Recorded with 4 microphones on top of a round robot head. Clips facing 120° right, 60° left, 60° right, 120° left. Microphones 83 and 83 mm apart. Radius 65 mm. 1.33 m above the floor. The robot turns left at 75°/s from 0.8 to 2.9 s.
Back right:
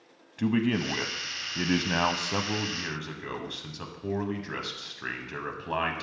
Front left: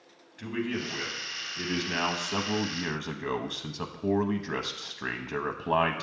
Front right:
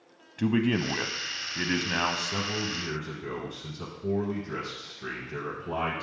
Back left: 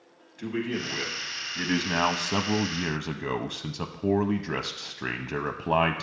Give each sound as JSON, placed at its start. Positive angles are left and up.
{"t": 0.4, "sound": "a man speaking", "azimuth_deg": -80, "distance_m": 0.6}